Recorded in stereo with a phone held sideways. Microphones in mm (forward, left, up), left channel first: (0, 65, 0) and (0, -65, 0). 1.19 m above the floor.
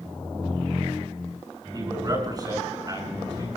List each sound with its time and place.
1.7 s a man speaking: 30° right (ahead or behind), 7 m